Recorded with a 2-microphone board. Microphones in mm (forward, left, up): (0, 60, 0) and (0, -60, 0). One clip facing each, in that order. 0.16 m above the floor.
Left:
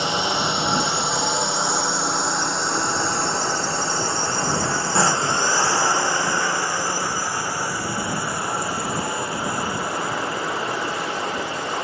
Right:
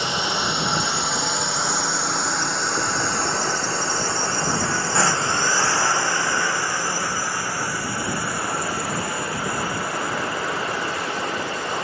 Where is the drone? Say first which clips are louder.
Left 2 dB; 25° left (ahead or behind); by 11.8 s 20° left (ahead or behind).